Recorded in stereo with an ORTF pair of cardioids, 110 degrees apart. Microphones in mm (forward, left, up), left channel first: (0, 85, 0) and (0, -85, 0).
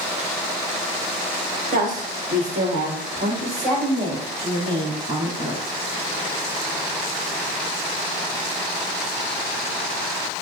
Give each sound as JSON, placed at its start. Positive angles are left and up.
{"t": 1.7, "sound": "a woman speaking", "azimuth_deg": -55, "distance_m": 1.3}